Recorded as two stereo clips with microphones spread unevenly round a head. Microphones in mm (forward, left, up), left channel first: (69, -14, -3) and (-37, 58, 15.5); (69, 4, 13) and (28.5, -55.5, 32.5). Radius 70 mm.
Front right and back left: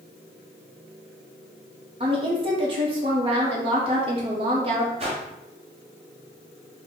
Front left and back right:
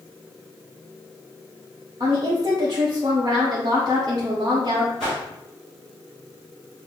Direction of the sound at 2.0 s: 170° right.